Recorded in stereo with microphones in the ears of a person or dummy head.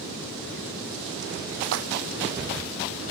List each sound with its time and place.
1.6 s a splash: 75° right (ahead or behind), 0.9 m